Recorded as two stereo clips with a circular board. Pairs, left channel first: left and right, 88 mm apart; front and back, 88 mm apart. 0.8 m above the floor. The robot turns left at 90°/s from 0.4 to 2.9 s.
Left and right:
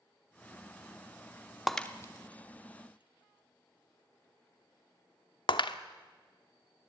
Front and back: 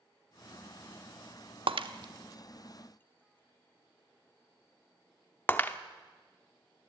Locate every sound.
1.7 s breaking glass: straight behind, 0.8 m; by 5.8 s 70° left, 0.8 m